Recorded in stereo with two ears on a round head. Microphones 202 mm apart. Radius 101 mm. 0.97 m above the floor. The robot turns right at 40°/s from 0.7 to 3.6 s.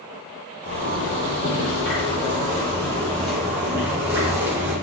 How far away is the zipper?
About 2.5 m.